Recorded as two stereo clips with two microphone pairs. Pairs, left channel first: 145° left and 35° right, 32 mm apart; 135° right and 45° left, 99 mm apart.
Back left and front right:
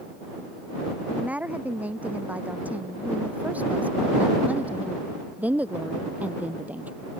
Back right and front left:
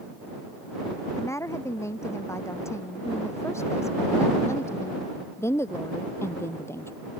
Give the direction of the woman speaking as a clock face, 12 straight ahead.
2 o'clock.